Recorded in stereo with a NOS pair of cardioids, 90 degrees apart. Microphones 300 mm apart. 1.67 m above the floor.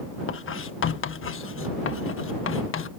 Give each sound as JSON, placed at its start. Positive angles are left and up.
{"t": 0.3, "sound": "writing", "azimuth_deg": 40}